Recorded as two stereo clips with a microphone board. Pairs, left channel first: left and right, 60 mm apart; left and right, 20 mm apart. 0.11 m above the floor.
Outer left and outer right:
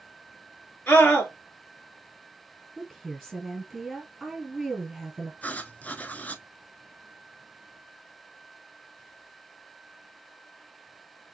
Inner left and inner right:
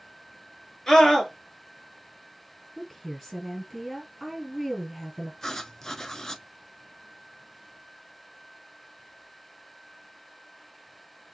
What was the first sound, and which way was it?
A scream, 30° left (ahead or behind).